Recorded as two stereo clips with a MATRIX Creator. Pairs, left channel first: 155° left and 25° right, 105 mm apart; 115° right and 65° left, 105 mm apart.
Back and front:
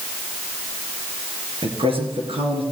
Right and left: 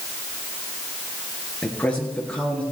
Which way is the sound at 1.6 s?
35° right.